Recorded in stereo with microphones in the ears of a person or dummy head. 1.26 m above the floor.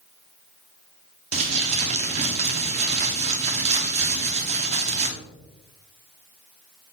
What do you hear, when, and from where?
1.3 s crumpling: 35° right (ahead or behind), 0.6 m